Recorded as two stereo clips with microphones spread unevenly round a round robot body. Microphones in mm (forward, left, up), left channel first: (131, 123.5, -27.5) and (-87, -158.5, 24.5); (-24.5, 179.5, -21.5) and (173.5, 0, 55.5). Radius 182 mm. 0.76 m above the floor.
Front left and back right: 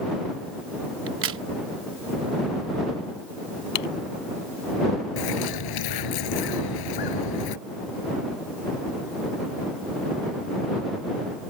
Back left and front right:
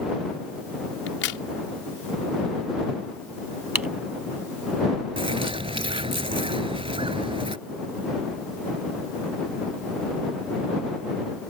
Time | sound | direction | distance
1.1 | a crack | 175° left | ?
3.8 | typing on a keyboard | 40° left | ?
5.2 | a bird | 25° left | ?